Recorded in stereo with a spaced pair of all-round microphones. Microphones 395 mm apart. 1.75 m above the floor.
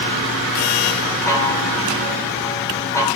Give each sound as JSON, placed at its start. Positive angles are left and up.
{"t": 1.3, "sound": "a chime", "side_deg": 5, "distance_m": 3.5}